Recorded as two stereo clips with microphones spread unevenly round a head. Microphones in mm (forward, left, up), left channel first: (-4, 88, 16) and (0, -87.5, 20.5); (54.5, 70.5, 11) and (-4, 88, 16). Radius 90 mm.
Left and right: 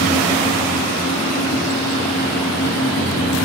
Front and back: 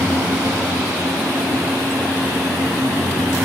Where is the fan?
165° left, 5 m.